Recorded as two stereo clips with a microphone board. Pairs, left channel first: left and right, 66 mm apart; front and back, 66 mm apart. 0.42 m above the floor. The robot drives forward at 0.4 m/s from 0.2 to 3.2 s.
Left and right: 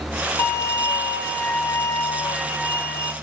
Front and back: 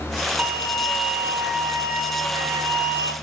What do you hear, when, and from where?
0.4 s a violin: 120° left, 1.7 m; by 3.1 s 150° left, 2.5 m